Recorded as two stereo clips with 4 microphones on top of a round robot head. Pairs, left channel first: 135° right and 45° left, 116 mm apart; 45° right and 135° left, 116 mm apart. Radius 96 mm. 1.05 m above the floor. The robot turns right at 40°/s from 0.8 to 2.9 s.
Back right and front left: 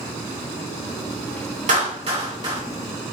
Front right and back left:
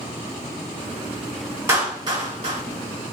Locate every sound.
1.7 s a clap: 65° left, 2.0 m; by 2.6 s 100° left, 2.0 m